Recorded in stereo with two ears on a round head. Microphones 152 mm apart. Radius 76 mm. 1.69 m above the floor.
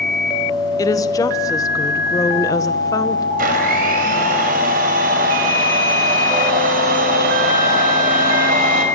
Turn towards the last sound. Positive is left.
turn(degrees=-55)  # may be behind; listen again after turning